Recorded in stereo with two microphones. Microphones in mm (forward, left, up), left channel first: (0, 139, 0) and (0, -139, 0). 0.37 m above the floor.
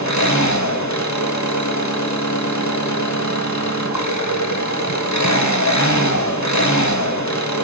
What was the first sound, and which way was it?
An engine running, 75° left (ahead or behind).